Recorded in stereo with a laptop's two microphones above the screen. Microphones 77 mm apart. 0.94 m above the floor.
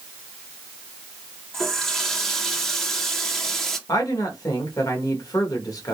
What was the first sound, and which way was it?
A running tap, 5° left (ahead or behind).